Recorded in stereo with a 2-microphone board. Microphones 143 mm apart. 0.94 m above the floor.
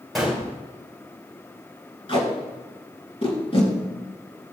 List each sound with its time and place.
0.1 s a gunshot: centre (ahead or behind), 3.5 m
2.1 s tape being pulled: 40° left (ahead or behind), 2.5 m